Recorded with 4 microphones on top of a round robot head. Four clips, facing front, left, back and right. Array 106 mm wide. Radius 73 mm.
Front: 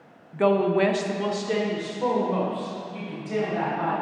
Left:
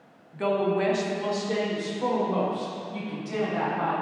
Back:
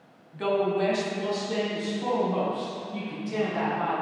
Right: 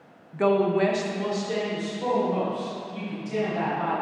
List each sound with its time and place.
0.3 s a woman speaking: 40° right, 0.9 m; by 3.9 s 25° left, 3.5 m